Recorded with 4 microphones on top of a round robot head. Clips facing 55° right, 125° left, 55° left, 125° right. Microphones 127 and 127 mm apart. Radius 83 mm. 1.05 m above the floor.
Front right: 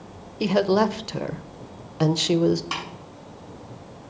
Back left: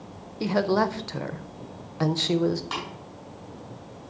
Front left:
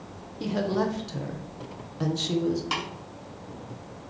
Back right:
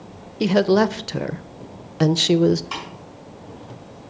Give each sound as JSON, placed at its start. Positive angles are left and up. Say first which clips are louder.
{"t": 0.4, "sound": "a woman speaking", "louder": "front right 3 dB, back right 10 dB", "azimuth_deg": -130, "distance_m": 0.5}
{"t": 2.7, "sound": "tapping", "louder": "even, even", "azimuth_deg": 30, "distance_m": 5.5}